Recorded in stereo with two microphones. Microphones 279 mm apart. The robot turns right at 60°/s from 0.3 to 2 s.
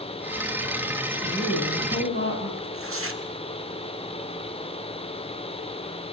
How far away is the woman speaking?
About 5.5 m.